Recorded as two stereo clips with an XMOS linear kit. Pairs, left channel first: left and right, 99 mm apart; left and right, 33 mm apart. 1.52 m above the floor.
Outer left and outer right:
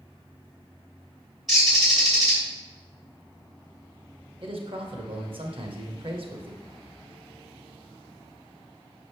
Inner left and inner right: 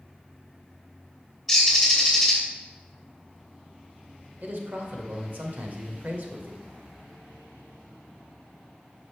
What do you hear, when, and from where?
1.5 s a bird: centre (ahead or behind), 2.5 m
4.4 s a man speaking: 60° right (ahead or behind), 1.2 m